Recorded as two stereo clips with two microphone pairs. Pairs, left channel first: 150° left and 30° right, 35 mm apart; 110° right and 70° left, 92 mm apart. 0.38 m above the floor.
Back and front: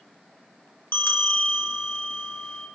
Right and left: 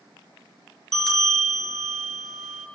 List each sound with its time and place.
0.9 s a bell: 165° left, 2.5 m